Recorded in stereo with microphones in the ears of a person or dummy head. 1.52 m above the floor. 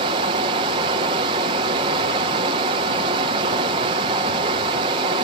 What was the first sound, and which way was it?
Running water, 25° right (ahead or behind).